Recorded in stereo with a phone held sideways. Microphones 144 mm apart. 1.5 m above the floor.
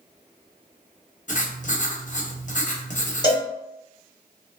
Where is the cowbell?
30° left (ahead or behind), 1.0 m.